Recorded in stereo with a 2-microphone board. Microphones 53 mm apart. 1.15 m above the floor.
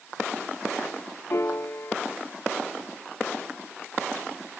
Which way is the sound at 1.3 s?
55° left (ahead or behind).